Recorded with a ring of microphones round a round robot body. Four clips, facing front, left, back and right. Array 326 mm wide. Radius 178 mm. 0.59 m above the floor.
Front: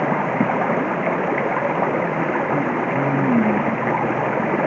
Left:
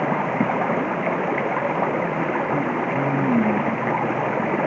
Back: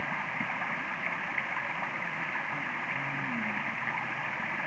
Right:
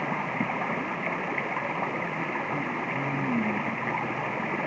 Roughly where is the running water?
Ahead left.